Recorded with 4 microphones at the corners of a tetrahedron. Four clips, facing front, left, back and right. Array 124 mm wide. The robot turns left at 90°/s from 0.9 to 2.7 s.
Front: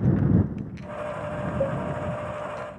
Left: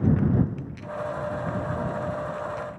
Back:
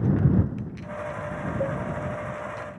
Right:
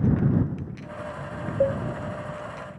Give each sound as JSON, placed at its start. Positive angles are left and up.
{"t": 1.6, "sound": "a cowbell", "azimuth_deg": -80}